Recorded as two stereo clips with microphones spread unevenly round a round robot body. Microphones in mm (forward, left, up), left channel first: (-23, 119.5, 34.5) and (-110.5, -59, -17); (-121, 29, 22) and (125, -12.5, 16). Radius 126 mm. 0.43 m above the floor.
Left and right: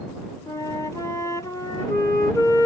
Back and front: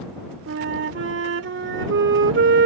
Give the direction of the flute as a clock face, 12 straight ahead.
1 o'clock.